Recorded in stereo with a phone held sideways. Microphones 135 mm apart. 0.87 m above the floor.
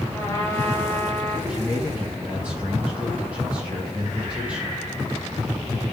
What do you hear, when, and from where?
0.1 s a trumpet: 20° left (ahead or behind), 3.5 m
1.5 s a man speaking: 10° right (ahead or behind), 5.5 m